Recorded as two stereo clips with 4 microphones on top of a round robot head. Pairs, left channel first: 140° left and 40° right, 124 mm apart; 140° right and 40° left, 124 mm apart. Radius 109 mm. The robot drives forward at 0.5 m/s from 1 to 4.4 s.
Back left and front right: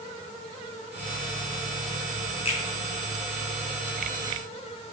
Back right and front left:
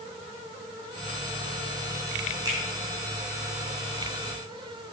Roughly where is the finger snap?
Left.